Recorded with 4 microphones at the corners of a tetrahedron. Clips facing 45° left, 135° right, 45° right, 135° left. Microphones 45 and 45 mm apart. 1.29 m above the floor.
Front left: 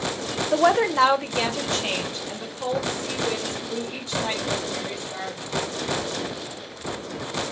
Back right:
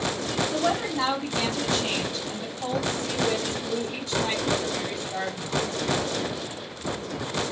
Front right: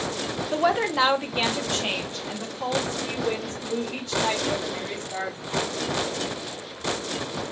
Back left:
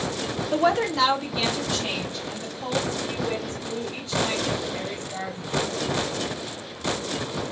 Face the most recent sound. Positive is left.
turn(degrees=-25)